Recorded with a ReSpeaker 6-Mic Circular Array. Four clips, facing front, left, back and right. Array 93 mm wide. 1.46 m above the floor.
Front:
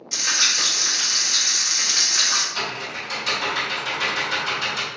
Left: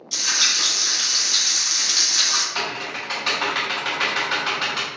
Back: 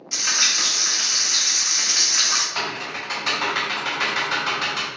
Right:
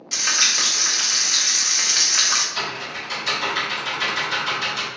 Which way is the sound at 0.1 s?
95° right.